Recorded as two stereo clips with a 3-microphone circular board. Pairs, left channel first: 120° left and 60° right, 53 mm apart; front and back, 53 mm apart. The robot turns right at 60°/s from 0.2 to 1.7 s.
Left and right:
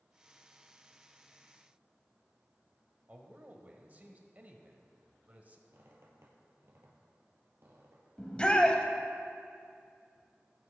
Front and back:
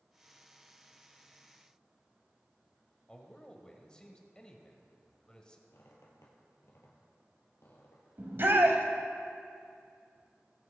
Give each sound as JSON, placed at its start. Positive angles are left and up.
{"t": 3.1, "sound": "a man speaking", "azimuth_deg": -60, "distance_m": 1.3}
{"t": 5.7, "sound": "a squeak", "azimuth_deg": -30, "distance_m": 2.5}
{"t": 8.2, "sound": "a shout", "azimuth_deg": 180, "distance_m": 1.3}